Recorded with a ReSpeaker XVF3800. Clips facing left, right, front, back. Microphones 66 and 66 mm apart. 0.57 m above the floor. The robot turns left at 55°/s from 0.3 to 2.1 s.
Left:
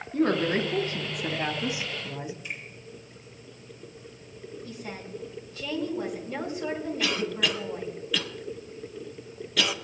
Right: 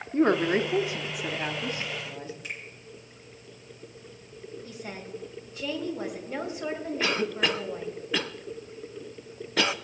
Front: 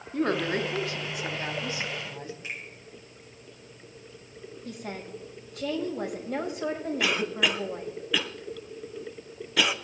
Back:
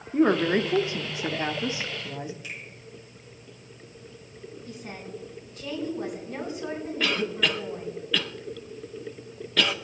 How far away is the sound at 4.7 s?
About 3 m.